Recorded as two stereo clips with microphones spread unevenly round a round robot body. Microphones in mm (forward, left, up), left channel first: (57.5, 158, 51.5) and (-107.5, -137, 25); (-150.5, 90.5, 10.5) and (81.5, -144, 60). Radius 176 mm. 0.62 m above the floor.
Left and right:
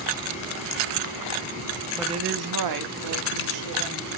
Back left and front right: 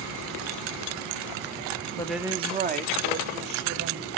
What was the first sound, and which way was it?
A woman speaking, 155° left.